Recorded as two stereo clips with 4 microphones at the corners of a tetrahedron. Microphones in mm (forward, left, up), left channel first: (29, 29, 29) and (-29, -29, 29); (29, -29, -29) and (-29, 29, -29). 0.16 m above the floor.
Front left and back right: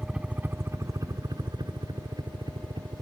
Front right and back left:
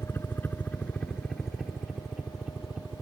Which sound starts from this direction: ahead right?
A helicopter, at 0.0 s.